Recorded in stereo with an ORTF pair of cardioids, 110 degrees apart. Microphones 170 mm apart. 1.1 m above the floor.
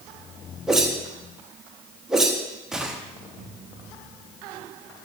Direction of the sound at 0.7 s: 5° right.